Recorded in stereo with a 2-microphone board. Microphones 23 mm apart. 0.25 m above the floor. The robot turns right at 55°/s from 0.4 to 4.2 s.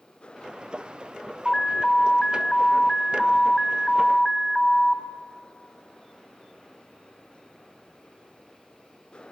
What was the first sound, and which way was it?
An alarm, 10° left (ahead or behind).